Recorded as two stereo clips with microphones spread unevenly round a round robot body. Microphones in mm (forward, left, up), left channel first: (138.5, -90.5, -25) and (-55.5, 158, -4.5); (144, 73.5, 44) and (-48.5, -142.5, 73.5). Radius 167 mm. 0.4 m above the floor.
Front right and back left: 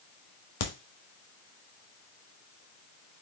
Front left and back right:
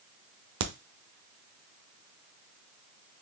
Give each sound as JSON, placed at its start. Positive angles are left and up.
{"t": 0.6, "sound": "a crack", "azimuth_deg": -100, "distance_m": 0.8}